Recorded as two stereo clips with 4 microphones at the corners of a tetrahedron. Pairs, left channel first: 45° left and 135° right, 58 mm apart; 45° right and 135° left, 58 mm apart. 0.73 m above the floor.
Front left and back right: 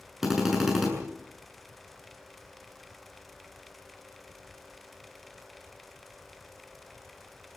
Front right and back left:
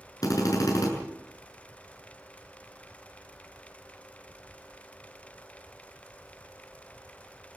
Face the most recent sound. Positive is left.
turn(degrees=-50)